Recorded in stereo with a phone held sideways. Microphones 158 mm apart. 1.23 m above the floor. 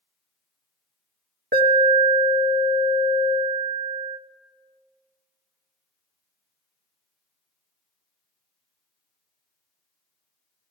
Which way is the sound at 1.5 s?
85° right.